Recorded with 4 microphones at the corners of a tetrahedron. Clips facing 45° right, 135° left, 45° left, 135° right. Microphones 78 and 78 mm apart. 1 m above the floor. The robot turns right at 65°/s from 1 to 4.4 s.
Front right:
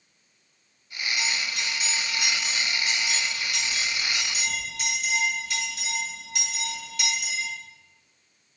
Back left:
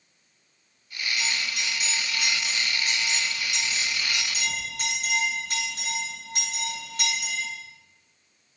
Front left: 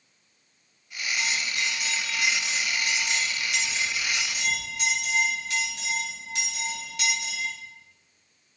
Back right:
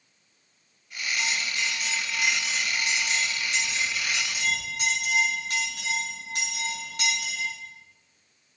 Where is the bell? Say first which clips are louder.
Even, even; 25° right, 7 m; by 7.5 s 175° right, 7 m.